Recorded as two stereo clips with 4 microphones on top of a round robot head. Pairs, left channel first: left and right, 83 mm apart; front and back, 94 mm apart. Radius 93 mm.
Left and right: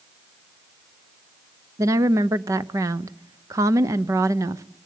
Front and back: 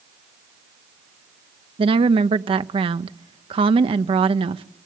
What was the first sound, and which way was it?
A woman speaking, 150° right.